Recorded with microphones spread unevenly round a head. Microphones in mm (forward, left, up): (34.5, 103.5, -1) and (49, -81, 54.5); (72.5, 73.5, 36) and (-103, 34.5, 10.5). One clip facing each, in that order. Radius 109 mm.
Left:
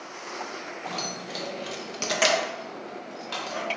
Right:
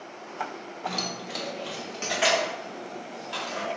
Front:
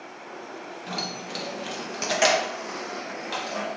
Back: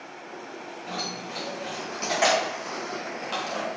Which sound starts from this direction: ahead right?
Keys jangling, at 0.9 s.